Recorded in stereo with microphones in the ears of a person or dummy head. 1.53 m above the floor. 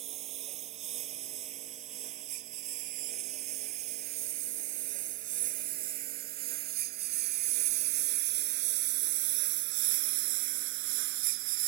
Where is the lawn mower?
30° right (ahead or behind); by 11.7 s 70° right (ahead or behind).